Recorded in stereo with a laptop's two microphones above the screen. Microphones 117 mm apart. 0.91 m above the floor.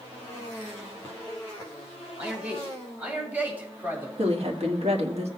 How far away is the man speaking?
About 4.5 m.